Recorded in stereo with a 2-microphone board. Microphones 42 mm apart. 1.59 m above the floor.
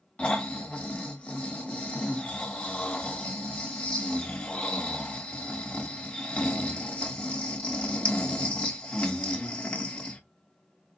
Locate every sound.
0.2 s snoring: 25° left (ahead or behind), 1.3 m